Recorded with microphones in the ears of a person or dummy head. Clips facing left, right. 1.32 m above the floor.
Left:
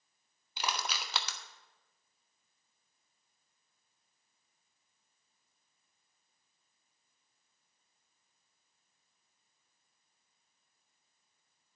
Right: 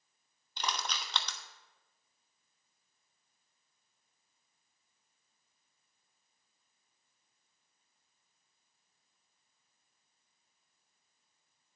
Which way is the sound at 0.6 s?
15° left (ahead or behind).